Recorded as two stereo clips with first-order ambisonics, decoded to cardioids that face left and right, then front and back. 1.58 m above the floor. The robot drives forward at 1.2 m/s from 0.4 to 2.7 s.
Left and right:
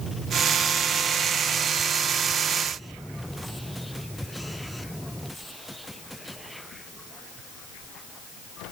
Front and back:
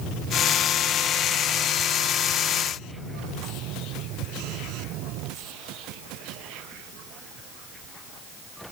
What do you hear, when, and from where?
Only background noise.